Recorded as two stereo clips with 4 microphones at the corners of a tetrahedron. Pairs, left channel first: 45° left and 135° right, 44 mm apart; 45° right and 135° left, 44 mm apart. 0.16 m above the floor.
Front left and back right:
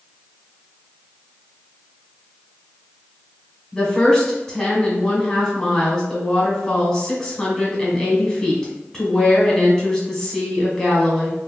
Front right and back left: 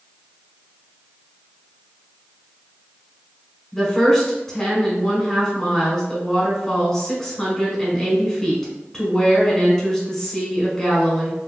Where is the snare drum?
No snare drum in this recording.